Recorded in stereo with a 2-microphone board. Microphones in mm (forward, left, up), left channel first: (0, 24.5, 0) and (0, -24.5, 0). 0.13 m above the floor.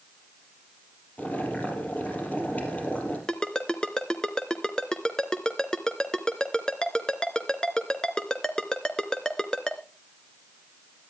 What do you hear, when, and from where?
1.2 s boiling: 30° left (ahead or behind), 4.5 m
3.3 s a ringtone: 15° left (ahead or behind), 1.4 m